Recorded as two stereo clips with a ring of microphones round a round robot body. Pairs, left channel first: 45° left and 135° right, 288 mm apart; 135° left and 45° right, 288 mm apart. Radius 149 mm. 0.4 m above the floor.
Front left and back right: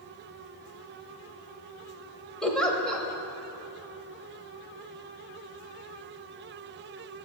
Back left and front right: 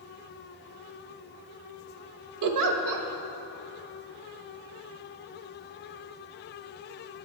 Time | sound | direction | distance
2.4 | a giggle | 45° right | 0.8 m